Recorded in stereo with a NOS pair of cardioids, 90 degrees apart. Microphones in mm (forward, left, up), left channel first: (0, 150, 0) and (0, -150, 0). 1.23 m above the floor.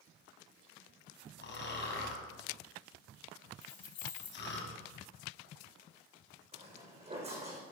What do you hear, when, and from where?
1.4 s snoring: 40° left, 3 m
3.6 s keys jangling: 55° left, 3 m
6.5 s footsteps: 20° right, 4 m